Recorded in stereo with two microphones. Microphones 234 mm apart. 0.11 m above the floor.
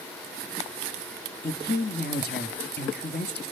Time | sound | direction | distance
1.4 | a woman speaking | 45° left (ahead or behind) | 2 m